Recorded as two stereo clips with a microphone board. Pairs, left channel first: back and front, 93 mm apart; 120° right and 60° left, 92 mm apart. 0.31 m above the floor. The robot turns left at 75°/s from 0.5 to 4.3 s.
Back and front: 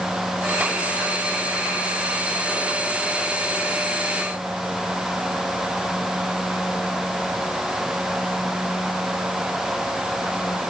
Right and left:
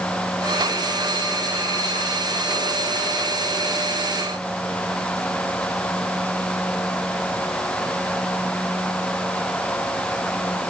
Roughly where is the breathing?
No breathing in this recording.